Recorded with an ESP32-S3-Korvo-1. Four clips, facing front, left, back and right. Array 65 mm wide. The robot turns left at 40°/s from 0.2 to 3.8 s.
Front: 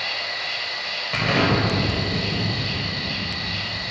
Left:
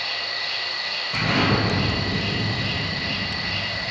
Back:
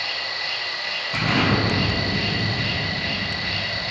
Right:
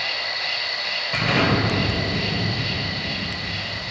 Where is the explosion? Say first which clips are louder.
Right 1 dB, front 1 dB; 35° right, 1.9 m; by 3.9 s 145° right, 1.9 m.